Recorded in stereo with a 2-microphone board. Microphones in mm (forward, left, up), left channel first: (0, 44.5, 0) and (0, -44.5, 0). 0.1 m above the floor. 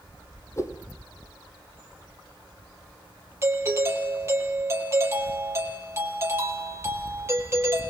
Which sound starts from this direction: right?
A doorbell, at 3.4 s.